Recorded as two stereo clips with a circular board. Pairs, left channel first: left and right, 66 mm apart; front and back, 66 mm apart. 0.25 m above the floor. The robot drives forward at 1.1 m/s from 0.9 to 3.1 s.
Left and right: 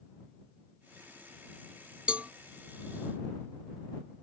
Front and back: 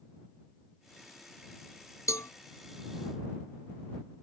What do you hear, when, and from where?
2.1 s a cowbell: 20° right; by 2.3 s 25° right